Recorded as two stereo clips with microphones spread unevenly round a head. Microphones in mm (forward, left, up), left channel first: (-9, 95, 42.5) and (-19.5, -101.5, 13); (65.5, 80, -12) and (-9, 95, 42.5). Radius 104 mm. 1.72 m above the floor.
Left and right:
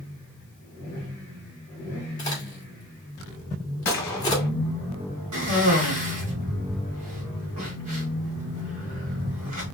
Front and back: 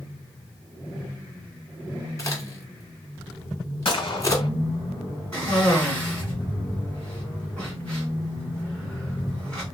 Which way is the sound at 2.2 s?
60° left.